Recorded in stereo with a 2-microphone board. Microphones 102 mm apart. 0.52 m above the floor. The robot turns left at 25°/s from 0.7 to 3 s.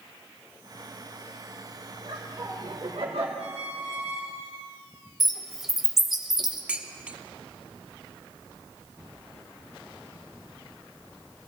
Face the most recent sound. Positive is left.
turn(degrees=-10)  # may be behind; listen again after turning